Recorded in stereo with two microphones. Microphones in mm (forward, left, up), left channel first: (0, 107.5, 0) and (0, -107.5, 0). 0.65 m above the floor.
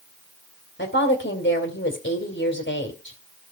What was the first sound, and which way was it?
A woman speaking, 65° left (ahead or behind).